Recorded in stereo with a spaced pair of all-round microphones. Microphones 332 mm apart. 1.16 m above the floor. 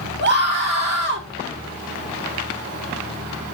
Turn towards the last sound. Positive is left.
turn(degrees=-40)  # may be behind; listen again after turning